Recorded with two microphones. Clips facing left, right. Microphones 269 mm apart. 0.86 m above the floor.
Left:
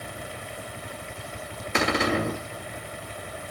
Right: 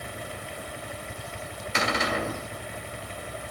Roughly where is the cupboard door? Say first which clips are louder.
Left 5 dB; left.